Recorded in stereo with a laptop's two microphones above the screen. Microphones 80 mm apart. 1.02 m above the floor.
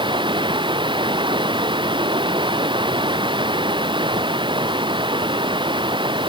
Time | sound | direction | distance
0.0 | running water | 85° right | ?